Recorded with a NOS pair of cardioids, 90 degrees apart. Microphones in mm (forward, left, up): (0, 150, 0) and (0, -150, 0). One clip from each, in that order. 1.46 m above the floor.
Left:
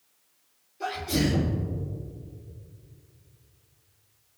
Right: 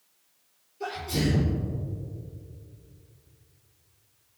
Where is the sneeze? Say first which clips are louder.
Left 2 dB; 65° left, 3 m.